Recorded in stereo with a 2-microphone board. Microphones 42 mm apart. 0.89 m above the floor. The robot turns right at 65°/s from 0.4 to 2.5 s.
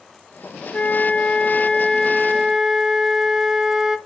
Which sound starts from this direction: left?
A flute, at 0.7 s.